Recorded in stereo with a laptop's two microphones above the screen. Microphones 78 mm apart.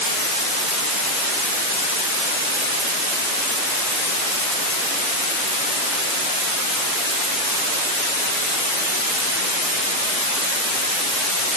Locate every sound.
Only background noise.